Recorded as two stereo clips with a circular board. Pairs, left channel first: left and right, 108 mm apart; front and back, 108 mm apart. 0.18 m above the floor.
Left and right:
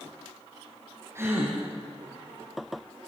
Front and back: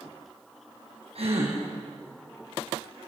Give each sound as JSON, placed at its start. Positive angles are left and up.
{"t": 1.1, "sound": "a gasp", "azimuth_deg": -155, "distance_m": 5.5}